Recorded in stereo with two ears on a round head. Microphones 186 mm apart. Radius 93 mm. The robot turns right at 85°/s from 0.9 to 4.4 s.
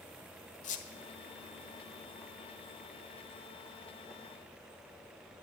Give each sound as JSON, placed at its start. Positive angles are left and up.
{"t": 0.6, "sound": "a squeak", "side_deg": 40, "distance_m": 1.2}